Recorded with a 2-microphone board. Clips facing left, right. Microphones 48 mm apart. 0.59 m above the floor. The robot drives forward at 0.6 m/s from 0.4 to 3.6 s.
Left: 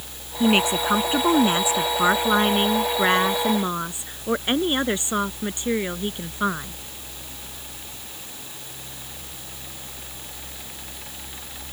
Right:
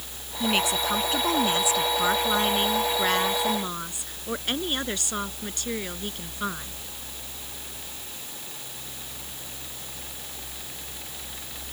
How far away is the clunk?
No clunk in this recording.